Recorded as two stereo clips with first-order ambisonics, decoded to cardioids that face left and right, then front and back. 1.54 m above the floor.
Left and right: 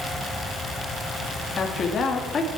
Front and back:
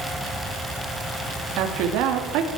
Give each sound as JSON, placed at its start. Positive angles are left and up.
{"t": 1.6, "sound": "a woman speaking", "azimuth_deg": 155, "distance_m": 2.5}